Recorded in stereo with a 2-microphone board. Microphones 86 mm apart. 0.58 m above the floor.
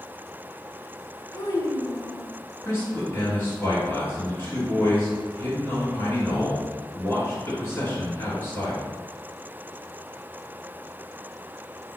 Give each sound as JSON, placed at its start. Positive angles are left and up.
{"t": 1.3, "sound": "a child speaking", "side_deg": 40, "distance_m": 0.9}
{"t": 2.6, "sound": "a man speaking", "side_deg": 25, "distance_m": 1.6}